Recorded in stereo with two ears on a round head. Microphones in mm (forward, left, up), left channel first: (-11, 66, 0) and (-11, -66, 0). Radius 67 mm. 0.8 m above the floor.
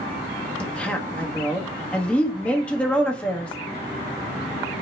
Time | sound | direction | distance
0.6 | a woman speaking | 10° left (ahead or behind) | 1.0 m